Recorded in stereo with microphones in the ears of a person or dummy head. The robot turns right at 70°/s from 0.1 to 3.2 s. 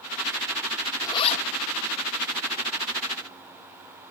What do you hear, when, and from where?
1.0 s a zipper: 20° left (ahead or behind), 1.6 m; by 1.4 s 50° left (ahead or behind), 1.6 m